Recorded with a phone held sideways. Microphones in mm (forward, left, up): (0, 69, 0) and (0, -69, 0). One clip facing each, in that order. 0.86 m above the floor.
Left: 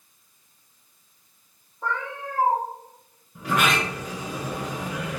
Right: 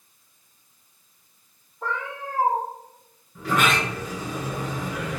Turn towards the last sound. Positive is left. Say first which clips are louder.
# right 1 dB
turn(degrees=10)  # may be behind; listen again after turning